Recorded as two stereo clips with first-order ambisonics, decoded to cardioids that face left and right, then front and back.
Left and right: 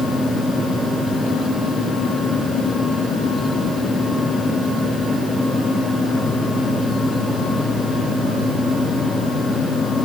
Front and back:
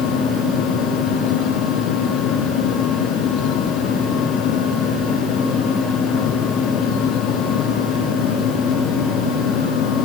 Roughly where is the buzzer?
No buzzer in this recording.